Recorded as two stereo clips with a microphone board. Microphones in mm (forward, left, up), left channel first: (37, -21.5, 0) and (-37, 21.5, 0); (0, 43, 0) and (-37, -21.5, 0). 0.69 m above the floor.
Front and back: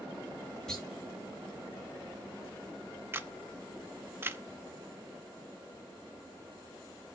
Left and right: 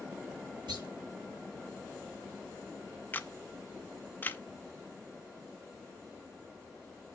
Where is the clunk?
115° right, 6 m.